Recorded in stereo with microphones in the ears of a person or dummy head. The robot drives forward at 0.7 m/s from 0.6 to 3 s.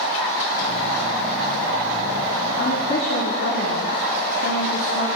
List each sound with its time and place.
2.6 s a woman speaking: 85° left, 1.3 m; by 5.1 s 70° left (ahead or behind), 1.3 m